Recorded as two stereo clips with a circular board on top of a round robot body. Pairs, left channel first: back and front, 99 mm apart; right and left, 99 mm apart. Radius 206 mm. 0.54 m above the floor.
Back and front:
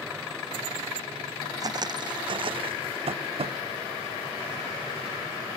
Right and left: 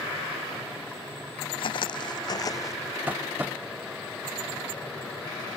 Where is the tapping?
15° left.